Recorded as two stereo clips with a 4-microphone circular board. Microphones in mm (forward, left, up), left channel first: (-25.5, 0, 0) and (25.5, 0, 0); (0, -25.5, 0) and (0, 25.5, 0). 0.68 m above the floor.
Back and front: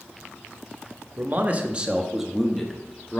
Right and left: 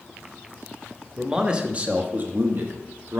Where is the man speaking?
15° left, 1.0 m; by 3.2 s 110° left, 1.2 m.